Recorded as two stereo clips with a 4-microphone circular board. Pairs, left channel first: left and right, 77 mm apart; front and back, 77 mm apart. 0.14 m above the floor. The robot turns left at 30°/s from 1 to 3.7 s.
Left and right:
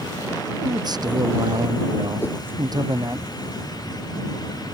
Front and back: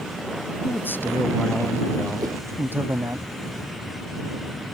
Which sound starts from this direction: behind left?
A whoosh, at 2.2 s.